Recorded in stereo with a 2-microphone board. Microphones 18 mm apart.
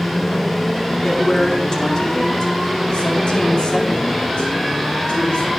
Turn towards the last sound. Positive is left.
turn(degrees=80)